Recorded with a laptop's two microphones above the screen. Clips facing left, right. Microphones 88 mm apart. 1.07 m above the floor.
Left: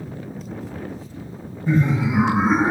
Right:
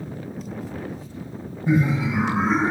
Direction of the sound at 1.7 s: Centre (ahead or behind).